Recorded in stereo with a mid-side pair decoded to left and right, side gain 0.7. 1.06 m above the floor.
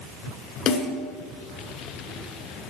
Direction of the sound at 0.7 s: 45° left.